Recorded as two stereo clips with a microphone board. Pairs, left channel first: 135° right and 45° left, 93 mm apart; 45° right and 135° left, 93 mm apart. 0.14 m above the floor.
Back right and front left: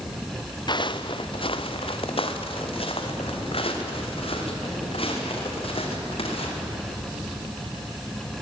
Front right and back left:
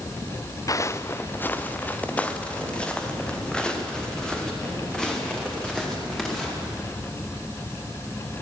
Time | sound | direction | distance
0.7 | footsteps | 100° right | 1.2 m